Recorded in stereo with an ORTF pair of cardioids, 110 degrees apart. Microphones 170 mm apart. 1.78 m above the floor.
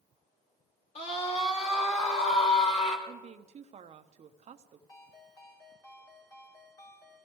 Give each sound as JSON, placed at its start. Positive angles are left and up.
{"t": 0.9, "sound": "a scream", "azimuth_deg": 40, "distance_m": 5.0}
{"t": 3.1, "sound": "a woman speaking", "azimuth_deg": -40, "distance_m": 1.0}
{"t": 4.9, "sound": "a ringtone", "azimuth_deg": 25, "distance_m": 2.5}